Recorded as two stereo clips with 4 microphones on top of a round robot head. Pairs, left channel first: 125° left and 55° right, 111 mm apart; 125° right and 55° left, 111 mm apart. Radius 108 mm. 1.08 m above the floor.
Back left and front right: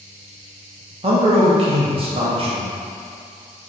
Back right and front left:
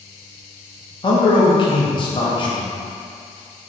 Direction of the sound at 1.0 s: 85° right.